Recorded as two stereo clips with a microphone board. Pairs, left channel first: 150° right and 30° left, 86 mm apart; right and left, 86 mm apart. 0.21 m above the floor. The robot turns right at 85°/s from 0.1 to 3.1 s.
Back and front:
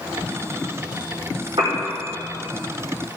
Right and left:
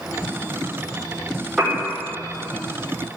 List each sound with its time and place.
1.6 s a piano: straight ahead, 5 m; by 1.8 s 20° left, 5 m